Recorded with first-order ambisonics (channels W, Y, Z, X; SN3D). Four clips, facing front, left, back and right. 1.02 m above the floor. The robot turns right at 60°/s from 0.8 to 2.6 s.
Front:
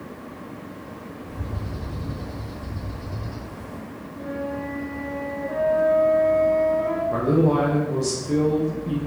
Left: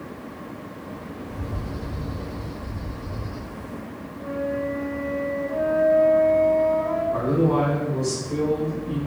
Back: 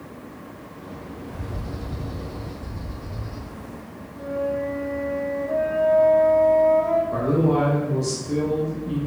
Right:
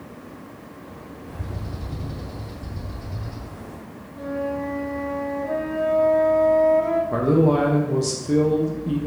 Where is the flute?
85° right, 0.8 m.